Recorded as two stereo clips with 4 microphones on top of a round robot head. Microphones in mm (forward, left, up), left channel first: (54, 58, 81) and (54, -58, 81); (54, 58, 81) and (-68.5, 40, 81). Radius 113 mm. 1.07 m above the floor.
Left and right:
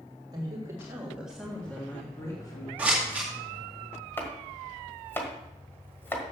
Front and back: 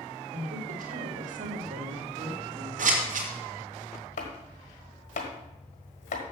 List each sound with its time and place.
0.3 s a woman speaking: 150° right, 2 m; by 2.7 s 150° left, 2.5 m
2.8 s scissors: 170° right, 2 m
4.2 s chopping: 20° left, 1.6 m